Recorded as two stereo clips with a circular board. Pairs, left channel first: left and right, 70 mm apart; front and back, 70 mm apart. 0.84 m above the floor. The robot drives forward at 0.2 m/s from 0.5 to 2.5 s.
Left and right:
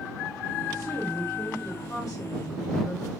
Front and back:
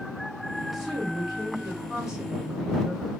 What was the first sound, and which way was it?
A woman speaking, 90° left.